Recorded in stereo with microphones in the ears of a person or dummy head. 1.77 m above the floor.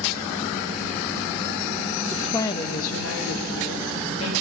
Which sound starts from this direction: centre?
A woman speaking, at 2.1 s.